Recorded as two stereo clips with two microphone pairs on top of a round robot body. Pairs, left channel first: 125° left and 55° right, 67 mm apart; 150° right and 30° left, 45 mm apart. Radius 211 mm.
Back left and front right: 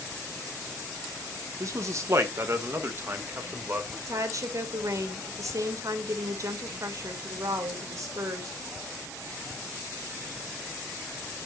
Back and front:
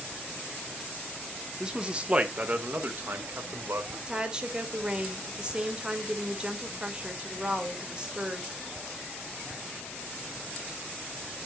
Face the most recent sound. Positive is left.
turn(degrees=-40)